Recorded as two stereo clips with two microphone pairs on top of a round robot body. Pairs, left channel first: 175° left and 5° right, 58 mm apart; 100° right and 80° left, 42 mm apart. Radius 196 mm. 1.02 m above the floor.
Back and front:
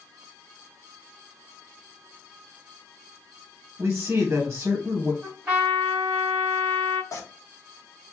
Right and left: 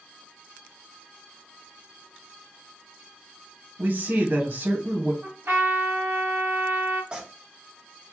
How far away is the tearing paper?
About 0.8 m.